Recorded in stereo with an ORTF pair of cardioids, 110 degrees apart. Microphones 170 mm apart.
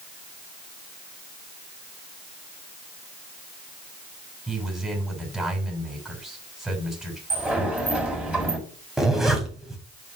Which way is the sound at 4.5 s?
Straight ahead.